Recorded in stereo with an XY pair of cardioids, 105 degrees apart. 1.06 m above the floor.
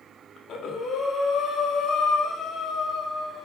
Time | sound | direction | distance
0.4 | breathing | 60° left | 1.8 m